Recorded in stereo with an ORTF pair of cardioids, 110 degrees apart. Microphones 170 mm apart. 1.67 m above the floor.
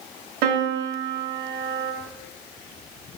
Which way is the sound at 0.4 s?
60° right.